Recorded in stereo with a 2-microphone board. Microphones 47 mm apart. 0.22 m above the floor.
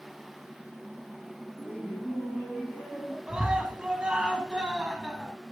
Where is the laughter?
25° left (ahead or behind), 9 m.